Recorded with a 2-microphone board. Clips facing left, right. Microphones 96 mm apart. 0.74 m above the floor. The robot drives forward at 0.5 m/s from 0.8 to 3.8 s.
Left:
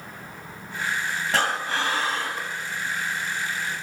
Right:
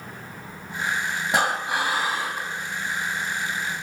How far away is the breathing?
About 0.7 m.